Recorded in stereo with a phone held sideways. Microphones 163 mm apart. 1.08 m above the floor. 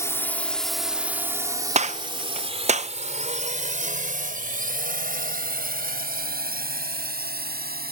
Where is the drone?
15° left (ahead or behind); by 7.9 s 70° right (ahead or behind).